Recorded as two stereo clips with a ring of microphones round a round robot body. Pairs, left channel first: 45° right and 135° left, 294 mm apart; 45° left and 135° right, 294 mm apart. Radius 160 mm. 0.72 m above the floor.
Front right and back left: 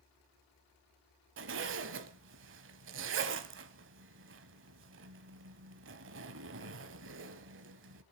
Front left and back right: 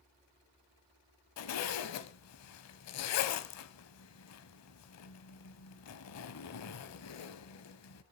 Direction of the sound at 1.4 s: 85° left.